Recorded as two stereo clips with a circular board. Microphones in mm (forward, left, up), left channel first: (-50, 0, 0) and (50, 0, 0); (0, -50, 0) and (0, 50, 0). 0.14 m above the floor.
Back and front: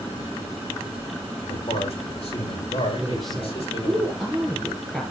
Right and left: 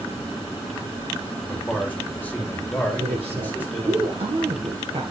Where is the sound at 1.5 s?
165° right, 6 m; by 4.0 s 160° right, 7 m.